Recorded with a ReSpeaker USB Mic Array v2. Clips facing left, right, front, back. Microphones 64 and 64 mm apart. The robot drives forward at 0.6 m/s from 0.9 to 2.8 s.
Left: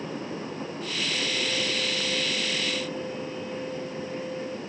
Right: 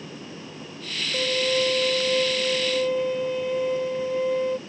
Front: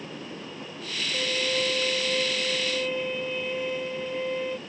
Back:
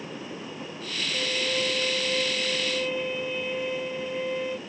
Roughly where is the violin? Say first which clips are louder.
Right 9 dB, front 1 dB; right.